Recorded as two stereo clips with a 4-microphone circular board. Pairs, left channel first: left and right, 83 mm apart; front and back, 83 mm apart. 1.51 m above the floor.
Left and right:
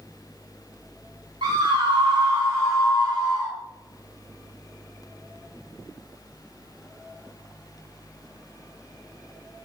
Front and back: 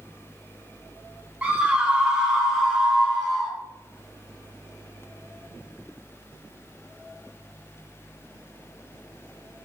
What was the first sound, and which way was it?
A scream, 105° right.